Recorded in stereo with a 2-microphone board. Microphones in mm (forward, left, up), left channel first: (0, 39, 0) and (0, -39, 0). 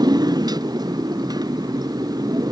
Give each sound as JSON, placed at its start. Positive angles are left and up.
{"t": 0.0, "sound": "a motorcycle", "side_deg": -60}